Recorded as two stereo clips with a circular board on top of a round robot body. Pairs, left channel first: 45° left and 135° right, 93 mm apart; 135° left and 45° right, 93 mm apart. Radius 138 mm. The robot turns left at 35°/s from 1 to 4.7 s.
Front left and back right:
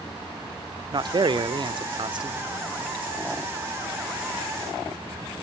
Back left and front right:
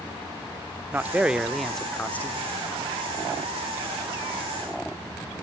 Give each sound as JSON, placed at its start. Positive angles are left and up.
{"t": 0.9, "sound": "a man speaking", "azimuth_deg": -110, "distance_m": 1.2}